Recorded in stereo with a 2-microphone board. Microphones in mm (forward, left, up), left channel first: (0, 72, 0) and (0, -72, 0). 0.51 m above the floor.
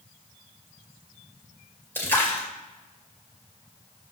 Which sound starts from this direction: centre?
A splash, at 1.9 s.